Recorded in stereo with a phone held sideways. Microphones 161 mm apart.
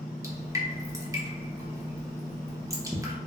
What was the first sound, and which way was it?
Dripping, 20° right (ahead or behind).